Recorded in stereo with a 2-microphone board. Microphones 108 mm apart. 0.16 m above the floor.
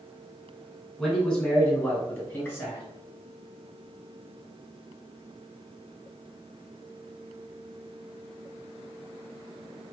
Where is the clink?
No clink in this recording.